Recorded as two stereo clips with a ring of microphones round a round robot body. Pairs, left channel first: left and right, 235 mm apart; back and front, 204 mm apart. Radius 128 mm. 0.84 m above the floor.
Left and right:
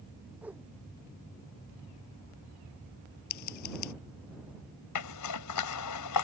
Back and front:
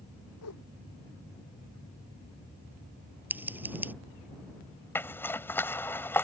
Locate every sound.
0.4 s a whoosh: 175° right
3.3 s scissors: 80° left
5.0 s a zipper: 100° left